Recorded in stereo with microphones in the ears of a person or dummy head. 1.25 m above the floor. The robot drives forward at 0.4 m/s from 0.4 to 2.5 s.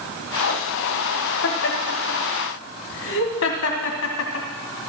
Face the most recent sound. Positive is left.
turn(degrees=60)  # may be behind; listen again after turning